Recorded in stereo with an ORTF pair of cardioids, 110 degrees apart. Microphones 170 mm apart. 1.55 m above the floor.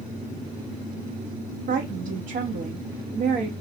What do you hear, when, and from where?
1.7 s a woman speaking: 55° right, 1.1 m